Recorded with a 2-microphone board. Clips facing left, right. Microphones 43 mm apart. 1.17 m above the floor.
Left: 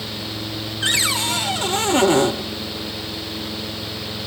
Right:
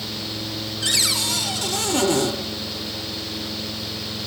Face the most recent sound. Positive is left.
turn(degrees=30)  # may be behind; listen again after turning